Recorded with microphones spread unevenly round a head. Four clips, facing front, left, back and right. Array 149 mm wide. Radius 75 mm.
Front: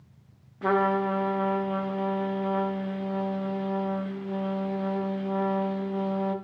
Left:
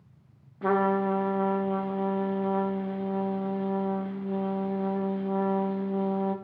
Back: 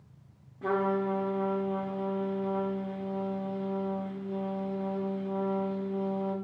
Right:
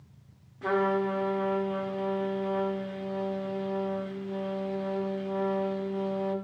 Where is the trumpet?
35° left, 0.6 m.